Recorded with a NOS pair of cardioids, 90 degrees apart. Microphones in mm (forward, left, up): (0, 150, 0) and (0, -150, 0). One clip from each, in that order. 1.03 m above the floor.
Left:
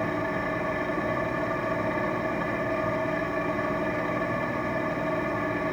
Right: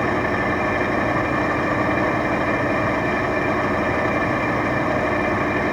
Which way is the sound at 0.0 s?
60° right.